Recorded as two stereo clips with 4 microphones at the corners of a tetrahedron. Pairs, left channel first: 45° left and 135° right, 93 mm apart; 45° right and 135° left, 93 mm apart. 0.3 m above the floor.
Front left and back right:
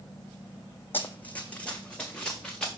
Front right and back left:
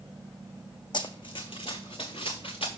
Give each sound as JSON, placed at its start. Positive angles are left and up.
{"t": 0.9, "sound": "running footsteps", "azimuth_deg": -20, "distance_m": 0.6}